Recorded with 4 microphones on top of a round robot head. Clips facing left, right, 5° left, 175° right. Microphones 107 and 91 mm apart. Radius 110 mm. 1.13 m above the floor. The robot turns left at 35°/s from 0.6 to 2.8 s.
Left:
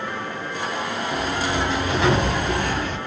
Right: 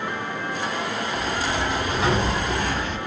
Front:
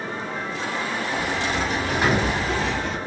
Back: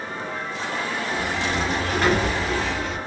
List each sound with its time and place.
1.1 s a sliding door: 120° left, 0.8 m; by 3.0 s 60° left, 0.8 m